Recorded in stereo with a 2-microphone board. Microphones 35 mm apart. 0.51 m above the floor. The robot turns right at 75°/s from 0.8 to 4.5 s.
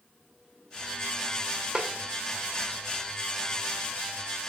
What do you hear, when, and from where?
1.8 s a snare drum: 20° right (ahead or behind), 0.6 m; by 1.9 s 30° right (ahead or behind), 0.6 m